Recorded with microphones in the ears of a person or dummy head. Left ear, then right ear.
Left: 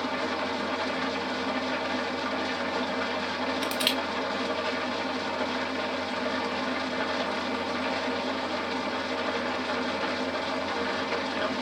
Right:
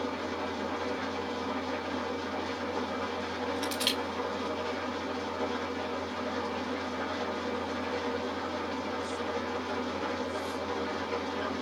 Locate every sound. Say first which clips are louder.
0.0 s an engine running: left 5 dB; 25° left (ahead or behind), 1.1 m
3.6 s crushing: left 3 dB; 20° left (ahead or behind), 1.0 m